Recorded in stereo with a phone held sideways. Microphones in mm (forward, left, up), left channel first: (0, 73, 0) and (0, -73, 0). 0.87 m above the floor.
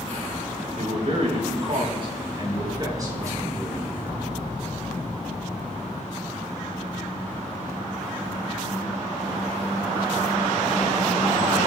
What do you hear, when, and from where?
0.8 s a man speaking: 60° right (ahead or behind), 3.5 m; by 4.2 s 15° right (ahead or behind), 4 m